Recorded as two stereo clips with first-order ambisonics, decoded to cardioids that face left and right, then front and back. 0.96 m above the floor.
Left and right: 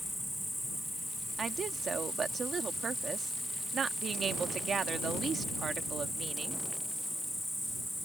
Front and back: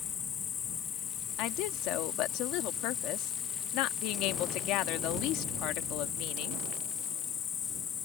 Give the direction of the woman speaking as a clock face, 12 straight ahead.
1 o'clock.